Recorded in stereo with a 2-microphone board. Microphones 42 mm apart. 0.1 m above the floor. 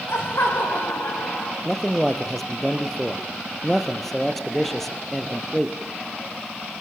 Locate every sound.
0.1 s laughter: 75° left (ahead or behind), 8 m; by 1.6 s 70° left (ahead or behind), 8.5 m
1.6 s a man speaking: 5° left (ahead or behind), 2.5 m